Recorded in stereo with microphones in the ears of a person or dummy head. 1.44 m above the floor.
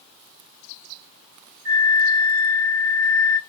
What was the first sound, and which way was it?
A flute, 25° right (ahead or behind).